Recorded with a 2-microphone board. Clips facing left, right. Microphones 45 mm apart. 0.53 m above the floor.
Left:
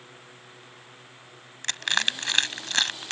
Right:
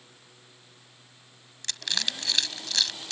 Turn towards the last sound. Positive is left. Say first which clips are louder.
# left 6 dB
turn(degrees=45)  # may be behind; listen again after turning